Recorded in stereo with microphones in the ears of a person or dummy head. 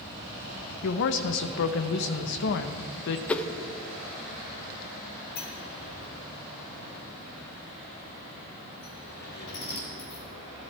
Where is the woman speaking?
60° left (ahead or behind), 1.0 m.